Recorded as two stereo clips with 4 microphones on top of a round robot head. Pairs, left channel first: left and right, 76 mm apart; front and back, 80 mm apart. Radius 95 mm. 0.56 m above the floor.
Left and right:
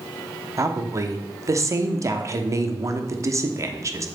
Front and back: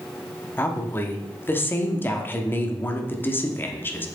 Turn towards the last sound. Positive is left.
turn(degrees=-55)